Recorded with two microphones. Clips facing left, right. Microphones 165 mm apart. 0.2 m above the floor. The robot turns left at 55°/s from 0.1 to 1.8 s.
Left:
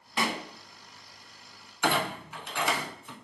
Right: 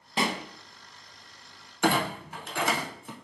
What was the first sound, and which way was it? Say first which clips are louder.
A pop: right 2 dB; 30° right (ahead or behind).